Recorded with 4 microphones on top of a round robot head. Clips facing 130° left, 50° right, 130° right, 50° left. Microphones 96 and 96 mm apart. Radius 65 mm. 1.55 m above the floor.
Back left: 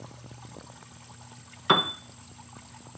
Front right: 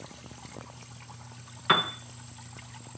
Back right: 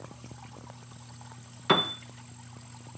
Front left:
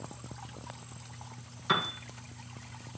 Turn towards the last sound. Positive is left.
turn(degrees=-165)